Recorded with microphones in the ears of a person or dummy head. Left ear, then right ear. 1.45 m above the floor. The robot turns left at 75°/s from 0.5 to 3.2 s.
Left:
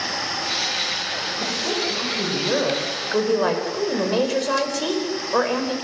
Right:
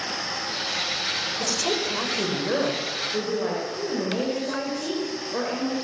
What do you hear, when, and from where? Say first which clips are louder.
1.4 s a woman speaking: left 2 dB; 90° right, 5.5 m; by 5.8 s 135° left, 5.5 m